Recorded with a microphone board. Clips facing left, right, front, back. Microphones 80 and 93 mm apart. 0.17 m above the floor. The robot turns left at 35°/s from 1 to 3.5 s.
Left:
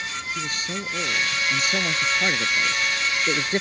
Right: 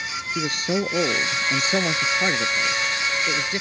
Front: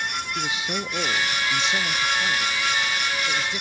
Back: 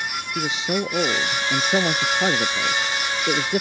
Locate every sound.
0.3 s a man speaking: 120° right; by 3.6 s 150° left